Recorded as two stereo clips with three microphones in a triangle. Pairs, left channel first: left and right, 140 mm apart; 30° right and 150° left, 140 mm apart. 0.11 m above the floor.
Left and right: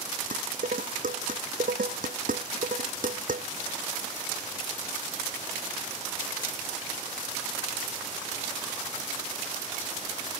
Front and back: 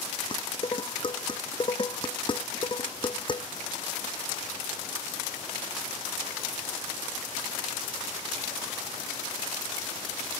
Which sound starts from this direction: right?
Dishes clattering, at 0.3 s.